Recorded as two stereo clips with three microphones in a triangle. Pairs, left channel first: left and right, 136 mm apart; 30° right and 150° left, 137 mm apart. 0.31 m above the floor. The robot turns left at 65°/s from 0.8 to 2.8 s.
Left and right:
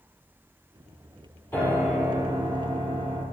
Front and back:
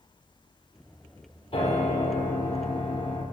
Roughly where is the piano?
Ahead.